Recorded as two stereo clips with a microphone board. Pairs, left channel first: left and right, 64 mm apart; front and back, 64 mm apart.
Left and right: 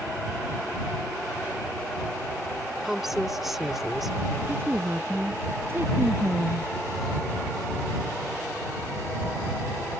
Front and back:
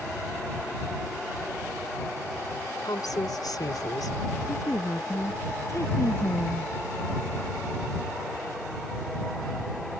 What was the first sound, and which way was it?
A woman speaking, 5° right.